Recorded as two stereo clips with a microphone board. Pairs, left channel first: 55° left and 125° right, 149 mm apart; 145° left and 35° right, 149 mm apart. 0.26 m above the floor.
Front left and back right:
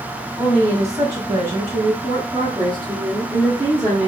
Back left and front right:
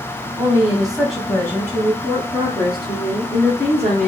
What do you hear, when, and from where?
0.4 s a woman speaking: 80° right, 1.2 m; by 4.1 s 175° left, 2 m